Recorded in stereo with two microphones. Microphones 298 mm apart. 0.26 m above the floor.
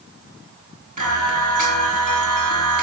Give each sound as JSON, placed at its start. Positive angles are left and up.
{"t": 1.0, "sound": "singing", "side_deg": -75, "distance_m": 5.0}